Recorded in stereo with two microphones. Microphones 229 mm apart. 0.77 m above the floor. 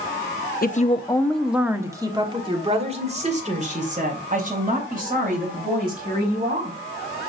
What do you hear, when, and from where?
0.6 s a woman speaking: 40° left (ahead or behind), 0.7 m; by 6.8 s 40° right (ahead or behind), 4.5 m